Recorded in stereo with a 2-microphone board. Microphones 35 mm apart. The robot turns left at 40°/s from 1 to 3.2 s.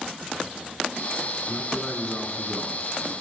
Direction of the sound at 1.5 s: 45° left.